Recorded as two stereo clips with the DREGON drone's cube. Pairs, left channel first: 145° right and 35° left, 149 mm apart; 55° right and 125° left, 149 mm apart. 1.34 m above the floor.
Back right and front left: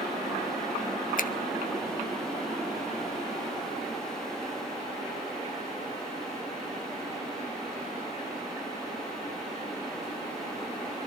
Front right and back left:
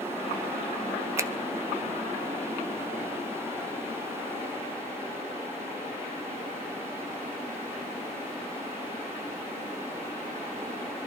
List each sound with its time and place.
1.2 s a finger snap: 165° right, 0.7 m